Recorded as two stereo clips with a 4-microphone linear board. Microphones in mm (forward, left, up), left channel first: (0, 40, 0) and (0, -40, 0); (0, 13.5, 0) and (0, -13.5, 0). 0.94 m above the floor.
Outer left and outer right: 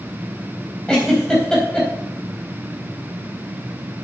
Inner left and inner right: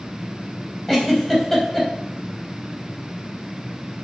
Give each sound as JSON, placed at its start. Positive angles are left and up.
{"t": 0.9, "sound": "a giggle", "side_deg": 10, "distance_m": 4.0}